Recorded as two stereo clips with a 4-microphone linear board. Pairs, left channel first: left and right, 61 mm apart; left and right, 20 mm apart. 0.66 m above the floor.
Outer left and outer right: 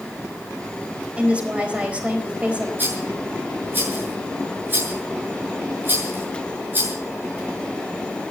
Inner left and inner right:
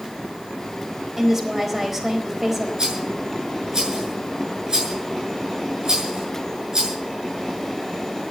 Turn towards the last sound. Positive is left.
turn(degrees=-35)  # may be behind; listen again after turning